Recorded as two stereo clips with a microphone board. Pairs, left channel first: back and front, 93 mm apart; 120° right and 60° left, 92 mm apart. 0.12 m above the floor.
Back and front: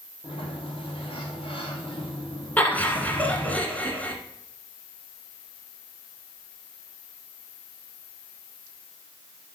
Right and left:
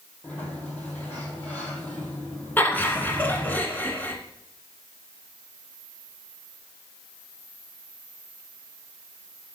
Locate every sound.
0.2 s a sliding door: 165° left, 2.5 m
2.6 s laughter: 140° right, 1.3 m